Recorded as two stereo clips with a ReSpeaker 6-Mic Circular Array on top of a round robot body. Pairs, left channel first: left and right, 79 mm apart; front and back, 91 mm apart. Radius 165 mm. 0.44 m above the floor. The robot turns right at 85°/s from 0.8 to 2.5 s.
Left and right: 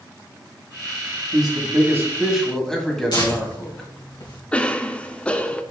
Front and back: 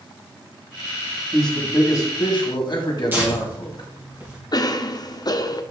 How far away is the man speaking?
About 1.8 m.